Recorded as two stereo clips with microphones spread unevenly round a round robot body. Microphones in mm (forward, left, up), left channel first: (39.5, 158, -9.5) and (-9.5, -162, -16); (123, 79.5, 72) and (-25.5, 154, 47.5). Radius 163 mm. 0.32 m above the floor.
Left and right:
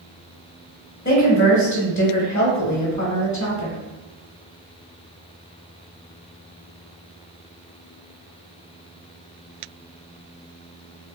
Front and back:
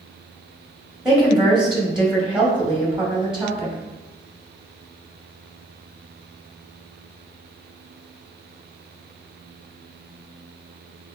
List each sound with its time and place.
1.1 s a woman speaking: 100° left, 0.9 m